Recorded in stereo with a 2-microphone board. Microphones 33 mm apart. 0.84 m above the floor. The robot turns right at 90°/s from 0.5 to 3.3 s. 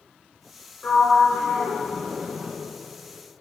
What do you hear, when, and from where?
0.8 s a sliding door: 40° left (ahead or behind), 2.5 m; by 2.5 s 10° right (ahead or behind), 2.5 m